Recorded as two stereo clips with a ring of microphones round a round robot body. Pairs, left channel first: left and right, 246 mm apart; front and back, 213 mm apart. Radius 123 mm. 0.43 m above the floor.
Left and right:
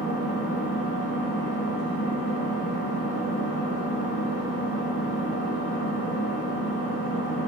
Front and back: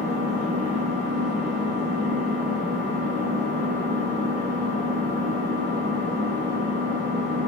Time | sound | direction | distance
0.0 | an engine running | 155° right | 1.6 m